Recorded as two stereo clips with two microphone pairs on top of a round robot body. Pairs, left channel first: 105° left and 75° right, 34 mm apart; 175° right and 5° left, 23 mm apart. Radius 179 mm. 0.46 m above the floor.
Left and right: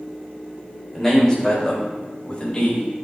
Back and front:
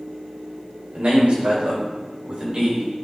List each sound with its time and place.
0.9 s a man speaking: 25° left, 4 m; by 2.9 s 45° left, 3 m